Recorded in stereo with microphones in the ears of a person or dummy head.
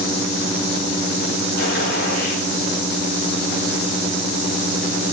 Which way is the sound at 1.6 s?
70° left (ahead or behind).